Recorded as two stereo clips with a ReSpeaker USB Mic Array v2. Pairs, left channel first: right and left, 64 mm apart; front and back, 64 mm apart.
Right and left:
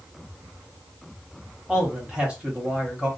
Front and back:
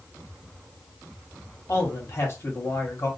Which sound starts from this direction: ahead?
A man speaking, at 1.7 s.